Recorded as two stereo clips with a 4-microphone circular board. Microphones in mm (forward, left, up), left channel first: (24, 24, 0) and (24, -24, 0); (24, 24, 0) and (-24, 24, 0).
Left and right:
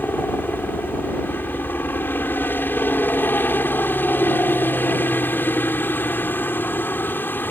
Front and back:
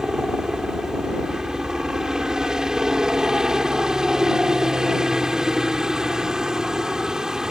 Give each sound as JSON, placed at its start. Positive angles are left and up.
{"t": 0.0, "sound": "a helicopter", "azimuth_deg": 105}